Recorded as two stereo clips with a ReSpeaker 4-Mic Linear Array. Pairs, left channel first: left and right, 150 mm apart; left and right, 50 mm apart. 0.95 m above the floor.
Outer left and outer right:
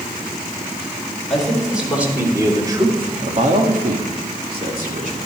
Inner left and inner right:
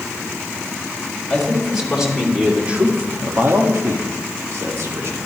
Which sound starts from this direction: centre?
A man speaking, at 1.3 s.